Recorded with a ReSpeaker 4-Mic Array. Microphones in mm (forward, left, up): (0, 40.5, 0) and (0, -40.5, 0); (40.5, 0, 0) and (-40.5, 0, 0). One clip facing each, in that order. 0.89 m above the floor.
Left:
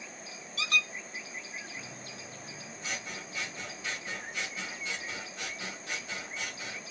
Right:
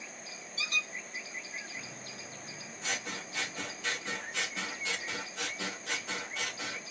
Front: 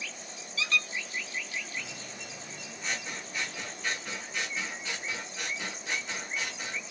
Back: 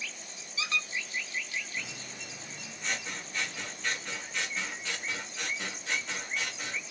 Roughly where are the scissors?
Right.